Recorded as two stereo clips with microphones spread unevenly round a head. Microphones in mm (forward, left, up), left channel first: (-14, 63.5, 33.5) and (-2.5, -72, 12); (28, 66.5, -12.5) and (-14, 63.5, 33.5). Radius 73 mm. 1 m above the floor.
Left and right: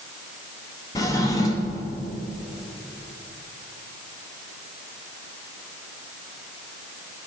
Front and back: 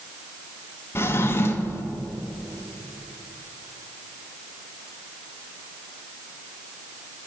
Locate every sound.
0.9 s a drawer: 25° left, 0.8 m